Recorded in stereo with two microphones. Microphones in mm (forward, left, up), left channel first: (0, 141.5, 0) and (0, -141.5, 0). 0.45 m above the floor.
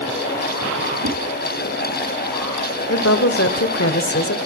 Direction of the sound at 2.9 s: 50° left (ahead or behind).